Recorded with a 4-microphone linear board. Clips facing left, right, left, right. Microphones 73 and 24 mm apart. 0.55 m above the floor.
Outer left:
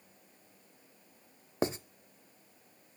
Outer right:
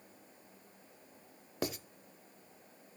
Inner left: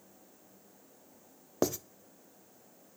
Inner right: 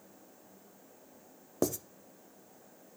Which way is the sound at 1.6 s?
30° left (ahead or behind).